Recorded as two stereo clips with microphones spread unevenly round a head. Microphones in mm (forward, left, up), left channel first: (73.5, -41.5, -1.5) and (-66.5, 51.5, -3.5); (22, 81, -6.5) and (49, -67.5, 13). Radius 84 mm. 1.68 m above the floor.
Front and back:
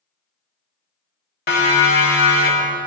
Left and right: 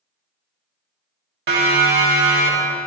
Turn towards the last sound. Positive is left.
turn(degrees=-55)